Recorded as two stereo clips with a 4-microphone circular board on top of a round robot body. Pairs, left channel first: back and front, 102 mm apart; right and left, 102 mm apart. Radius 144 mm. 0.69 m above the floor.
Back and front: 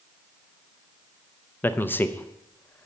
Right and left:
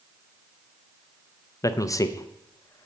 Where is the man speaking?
120° right, 0.6 m.